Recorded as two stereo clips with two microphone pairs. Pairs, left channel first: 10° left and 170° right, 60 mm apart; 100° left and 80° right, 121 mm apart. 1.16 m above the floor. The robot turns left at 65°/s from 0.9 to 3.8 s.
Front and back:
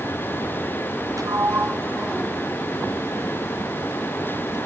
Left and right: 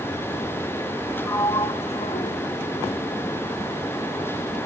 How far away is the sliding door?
About 1.1 m.